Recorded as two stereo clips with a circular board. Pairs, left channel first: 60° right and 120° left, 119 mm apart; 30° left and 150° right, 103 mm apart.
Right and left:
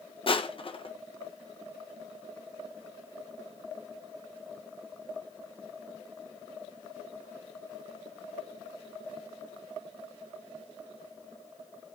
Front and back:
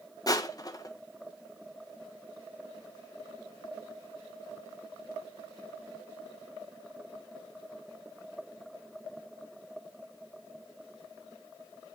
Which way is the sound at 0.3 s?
20° right.